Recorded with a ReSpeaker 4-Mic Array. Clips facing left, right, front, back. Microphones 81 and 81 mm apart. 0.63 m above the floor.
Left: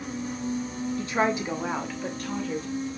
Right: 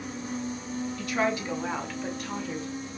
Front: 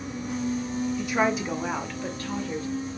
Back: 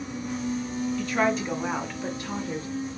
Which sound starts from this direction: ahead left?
A woman speaking, at 1.0 s.